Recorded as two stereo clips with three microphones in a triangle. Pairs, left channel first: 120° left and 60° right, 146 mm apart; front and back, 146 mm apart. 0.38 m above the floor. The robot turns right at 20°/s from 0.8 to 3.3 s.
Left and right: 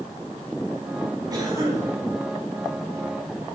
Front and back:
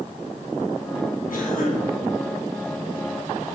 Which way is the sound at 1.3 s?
Straight ahead.